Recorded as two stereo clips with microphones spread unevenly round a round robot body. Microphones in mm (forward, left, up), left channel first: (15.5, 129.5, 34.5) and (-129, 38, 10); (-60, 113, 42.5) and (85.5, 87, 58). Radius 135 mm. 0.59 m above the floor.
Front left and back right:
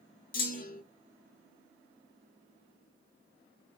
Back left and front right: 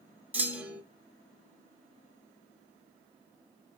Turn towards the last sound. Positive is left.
turn(degrees=70)